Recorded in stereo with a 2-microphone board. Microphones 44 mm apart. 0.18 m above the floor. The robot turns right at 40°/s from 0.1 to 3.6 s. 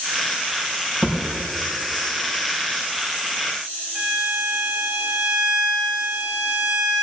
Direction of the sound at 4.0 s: 30° right (ahead or behind).